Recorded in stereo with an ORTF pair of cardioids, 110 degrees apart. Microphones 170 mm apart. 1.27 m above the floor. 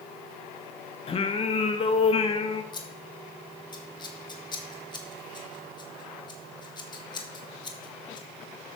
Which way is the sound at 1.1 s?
35° left.